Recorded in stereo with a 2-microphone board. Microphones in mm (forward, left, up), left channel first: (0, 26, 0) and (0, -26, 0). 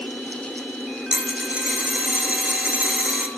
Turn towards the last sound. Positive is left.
turn(degrees=-25)  # may be behind; listen again after turning